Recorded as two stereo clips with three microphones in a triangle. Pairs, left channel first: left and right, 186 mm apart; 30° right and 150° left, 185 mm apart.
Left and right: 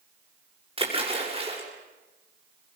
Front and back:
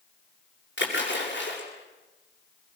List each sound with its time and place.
0.8 s a splash: 30° right, 6.5 m